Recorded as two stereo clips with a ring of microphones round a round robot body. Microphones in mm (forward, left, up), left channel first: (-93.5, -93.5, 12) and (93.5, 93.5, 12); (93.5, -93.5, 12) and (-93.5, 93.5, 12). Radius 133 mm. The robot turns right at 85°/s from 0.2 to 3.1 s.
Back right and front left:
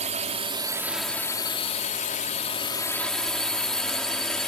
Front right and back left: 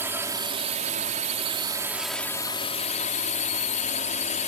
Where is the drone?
65° left; by 4.5 s 50° right.